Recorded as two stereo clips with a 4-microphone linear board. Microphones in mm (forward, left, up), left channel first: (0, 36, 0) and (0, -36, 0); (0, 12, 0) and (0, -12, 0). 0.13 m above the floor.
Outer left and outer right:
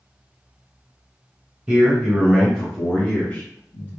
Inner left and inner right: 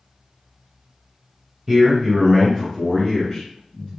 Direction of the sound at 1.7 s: 10° right (ahead or behind).